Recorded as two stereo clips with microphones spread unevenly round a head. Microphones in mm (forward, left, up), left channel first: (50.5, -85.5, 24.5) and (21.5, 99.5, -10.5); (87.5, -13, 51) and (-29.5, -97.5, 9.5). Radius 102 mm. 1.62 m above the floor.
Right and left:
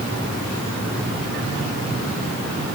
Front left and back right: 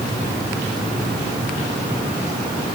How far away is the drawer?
I don't hear a drawer.